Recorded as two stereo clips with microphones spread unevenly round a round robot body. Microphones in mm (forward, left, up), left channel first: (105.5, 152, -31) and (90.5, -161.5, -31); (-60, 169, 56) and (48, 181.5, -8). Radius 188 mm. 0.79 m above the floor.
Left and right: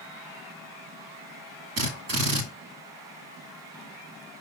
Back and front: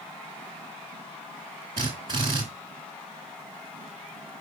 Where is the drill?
80° right, 1.3 m.